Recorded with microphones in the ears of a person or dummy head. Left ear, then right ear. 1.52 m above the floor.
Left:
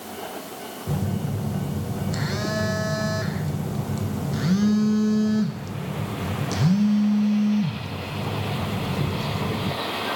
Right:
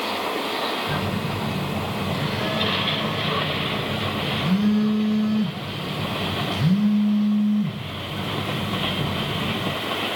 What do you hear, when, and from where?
0.9 s a phone buzzing: 75° left (ahead or behind), 1.1 m